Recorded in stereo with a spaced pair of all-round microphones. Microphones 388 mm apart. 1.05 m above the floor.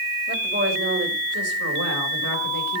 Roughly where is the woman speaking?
Right.